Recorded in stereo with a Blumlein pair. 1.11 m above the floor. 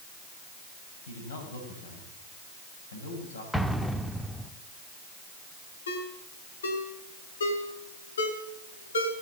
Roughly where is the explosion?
Ahead.